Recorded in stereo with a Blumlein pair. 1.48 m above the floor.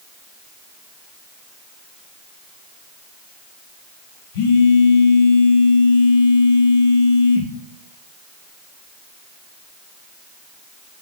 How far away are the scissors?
No scissors in this recording.